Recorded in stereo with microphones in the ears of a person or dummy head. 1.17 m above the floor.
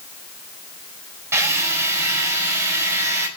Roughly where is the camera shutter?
I don't hear a camera shutter.